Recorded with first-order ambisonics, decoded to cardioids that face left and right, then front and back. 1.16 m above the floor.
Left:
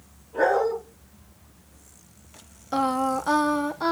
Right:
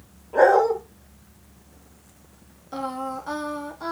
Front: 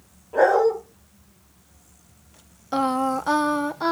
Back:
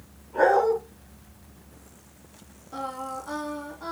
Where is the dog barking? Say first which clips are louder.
Right 5 dB, front 3 dB; 45° right, 2.5 m.